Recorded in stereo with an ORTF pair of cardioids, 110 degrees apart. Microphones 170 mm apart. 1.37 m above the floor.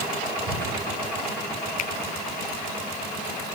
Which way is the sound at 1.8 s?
50° left.